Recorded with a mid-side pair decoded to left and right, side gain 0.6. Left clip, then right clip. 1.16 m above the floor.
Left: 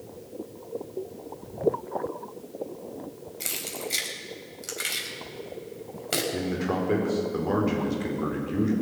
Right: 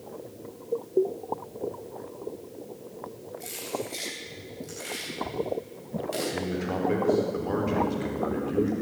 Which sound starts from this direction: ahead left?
Keys jangling, at 3.4 s.